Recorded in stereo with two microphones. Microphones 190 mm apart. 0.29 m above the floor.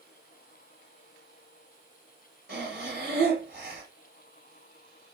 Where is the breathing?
60° right (ahead or behind), 3 m.